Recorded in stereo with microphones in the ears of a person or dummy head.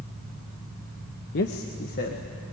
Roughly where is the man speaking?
Left.